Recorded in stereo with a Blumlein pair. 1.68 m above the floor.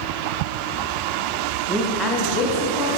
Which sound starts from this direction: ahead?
A woman speaking, at 1.7 s.